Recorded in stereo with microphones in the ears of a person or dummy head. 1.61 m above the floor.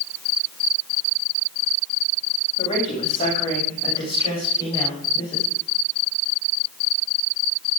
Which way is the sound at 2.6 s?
30° left (ahead or behind).